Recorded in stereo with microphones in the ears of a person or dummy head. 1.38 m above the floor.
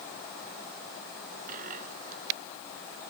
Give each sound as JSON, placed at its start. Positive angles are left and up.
{"t": 1.5, "sound": "a dropped coin", "side_deg": -40}